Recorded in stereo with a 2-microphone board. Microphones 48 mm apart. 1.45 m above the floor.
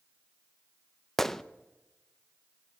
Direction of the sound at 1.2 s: 10° left (ahead or behind).